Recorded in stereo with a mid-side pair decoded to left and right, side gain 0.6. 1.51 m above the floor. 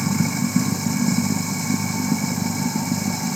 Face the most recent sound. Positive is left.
turn(degrees=-10)